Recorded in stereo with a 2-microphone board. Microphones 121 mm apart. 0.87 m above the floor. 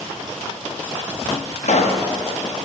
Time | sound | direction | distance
1.6 | a pop | 65° left (ahead or behind) | 0.8 m